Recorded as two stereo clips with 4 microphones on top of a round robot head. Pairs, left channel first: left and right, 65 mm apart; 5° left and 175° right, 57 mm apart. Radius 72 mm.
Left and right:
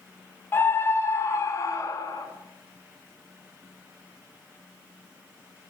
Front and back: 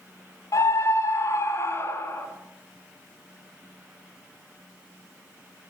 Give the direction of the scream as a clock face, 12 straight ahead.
11 o'clock.